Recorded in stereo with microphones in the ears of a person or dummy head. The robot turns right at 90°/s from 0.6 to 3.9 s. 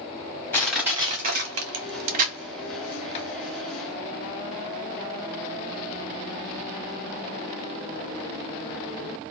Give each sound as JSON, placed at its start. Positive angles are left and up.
{"t": 0.5, "sound": "crushing", "side_deg": 10, "distance_m": 1.0}